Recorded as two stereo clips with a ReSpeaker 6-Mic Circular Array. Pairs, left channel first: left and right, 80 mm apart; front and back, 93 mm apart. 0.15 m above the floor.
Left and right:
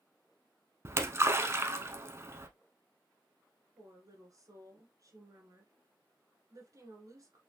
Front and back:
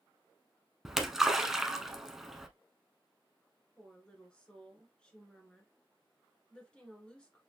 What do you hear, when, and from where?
0.8 s a splash: 100° right, 0.6 m
3.8 s a woman speaking: 75° right, 1.6 m